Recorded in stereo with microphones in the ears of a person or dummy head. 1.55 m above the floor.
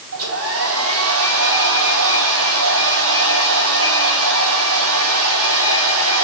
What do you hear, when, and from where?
0.1 s a hair dryer: 80° right, 3 m